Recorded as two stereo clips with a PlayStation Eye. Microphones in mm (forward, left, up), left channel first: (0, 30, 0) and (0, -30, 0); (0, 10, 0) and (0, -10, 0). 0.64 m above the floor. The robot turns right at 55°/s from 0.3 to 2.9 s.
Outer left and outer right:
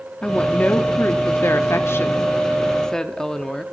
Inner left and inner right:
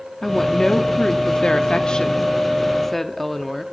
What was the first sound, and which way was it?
A woman speaking, 20° left.